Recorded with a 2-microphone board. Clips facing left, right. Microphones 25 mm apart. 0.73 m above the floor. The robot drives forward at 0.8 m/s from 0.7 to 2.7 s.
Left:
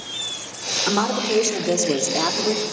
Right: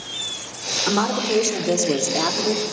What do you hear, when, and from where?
0.9 s a woman speaking: 20° left (ahead or behind), 3 m; by 2.6 s 35° left (ahead or behind), 1.7 m